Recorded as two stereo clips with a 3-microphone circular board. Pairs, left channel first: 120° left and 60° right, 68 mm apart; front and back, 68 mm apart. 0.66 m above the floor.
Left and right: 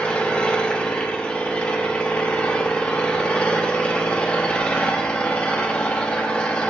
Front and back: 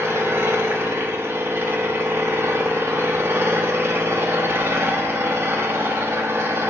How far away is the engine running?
About 0.8 m.